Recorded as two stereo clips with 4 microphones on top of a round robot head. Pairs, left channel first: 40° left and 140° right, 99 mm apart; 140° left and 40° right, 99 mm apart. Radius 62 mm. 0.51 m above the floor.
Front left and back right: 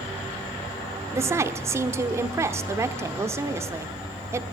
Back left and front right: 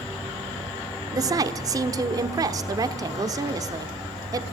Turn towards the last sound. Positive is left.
turn(degrees=-85)